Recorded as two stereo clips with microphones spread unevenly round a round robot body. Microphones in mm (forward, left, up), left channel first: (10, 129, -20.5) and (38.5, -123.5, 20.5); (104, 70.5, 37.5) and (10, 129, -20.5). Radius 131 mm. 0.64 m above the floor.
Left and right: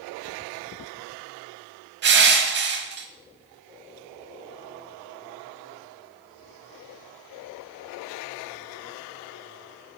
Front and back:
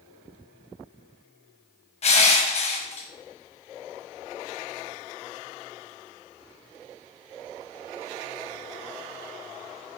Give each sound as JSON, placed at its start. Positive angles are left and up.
{"t": 2.0, "sound": "crushing", "azimuth_deg": -35, "distance_m": 1.1}